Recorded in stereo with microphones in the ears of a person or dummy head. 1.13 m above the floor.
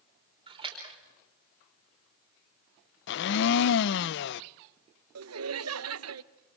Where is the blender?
65° left (ahead or behind), 0.5 m.